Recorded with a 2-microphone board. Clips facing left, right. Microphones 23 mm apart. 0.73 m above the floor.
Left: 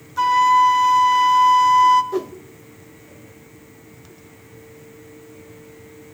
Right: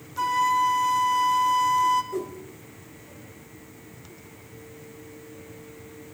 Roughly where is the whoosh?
Left.